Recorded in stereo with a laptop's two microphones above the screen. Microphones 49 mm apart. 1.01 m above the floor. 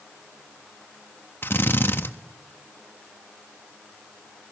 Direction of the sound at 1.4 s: 50° left (ahead or behind).